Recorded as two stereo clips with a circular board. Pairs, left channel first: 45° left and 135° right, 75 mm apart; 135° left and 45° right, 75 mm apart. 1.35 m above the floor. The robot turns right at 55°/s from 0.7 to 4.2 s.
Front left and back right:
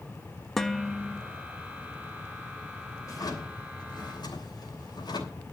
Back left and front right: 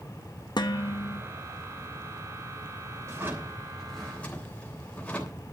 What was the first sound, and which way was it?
Dishes clattering, 130° left.